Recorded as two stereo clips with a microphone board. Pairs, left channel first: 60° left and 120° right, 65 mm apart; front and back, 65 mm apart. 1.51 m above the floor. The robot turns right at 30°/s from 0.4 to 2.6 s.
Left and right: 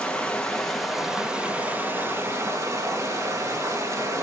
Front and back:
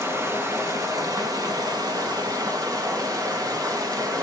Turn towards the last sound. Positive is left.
turn(degrees=-160)